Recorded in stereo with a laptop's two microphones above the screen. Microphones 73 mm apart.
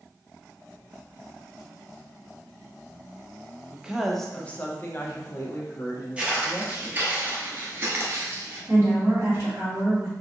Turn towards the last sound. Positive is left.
turn(degrees=-30)  # may be behind; listen again after turning